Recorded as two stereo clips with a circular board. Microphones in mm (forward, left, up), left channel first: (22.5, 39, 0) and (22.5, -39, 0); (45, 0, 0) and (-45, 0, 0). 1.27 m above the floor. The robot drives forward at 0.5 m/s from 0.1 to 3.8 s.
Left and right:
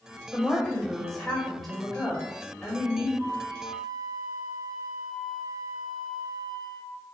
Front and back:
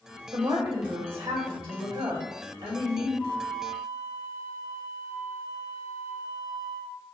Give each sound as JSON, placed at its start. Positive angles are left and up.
{"t": 0.3, "sound": "a woman speaking", "azimuth_deg": 180, "distance_m": 1.6}
{"t": 3.2, "sound": "a flute", "azimuth_deg": -115, "distance_m": 3.0}